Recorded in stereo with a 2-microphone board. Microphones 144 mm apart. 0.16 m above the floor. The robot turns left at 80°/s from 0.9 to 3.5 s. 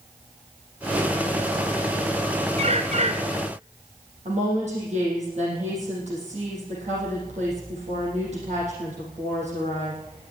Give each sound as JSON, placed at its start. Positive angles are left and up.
{"t": 2.6, "sound": "a bird", "azimuth_deg": -65, "distance_m": 1.0}
{"t": 4.2, "sound": "a woman speaking", "side_deg": -55, "distance_m": 5.0}